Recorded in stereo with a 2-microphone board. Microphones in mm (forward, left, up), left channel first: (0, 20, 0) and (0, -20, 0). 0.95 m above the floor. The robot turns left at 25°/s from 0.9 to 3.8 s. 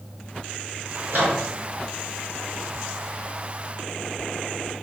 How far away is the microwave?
About 3 m.